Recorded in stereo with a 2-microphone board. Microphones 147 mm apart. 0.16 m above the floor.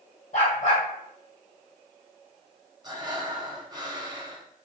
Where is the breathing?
30° right (ahead or behind), 0.5 m.